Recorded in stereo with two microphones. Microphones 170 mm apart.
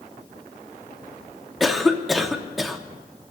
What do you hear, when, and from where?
1.6 s a cough: centre (ahead or behind), 1.0 m